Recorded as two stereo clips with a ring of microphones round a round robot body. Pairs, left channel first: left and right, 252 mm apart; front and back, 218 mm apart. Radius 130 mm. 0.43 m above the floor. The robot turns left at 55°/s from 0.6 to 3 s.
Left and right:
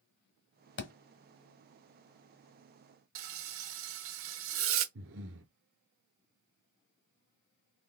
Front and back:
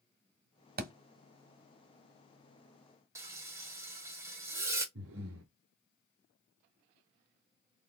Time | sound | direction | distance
0.8 | a thud | 135° left | 1.0 m
3.1 | frying | 105° right | 0.9 m
5.0 | breathing | 135° right | 1.1 m